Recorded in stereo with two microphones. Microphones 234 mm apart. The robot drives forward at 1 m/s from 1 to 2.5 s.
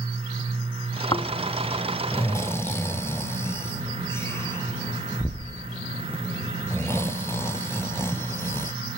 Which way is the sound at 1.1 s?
20° left (ahead or behind).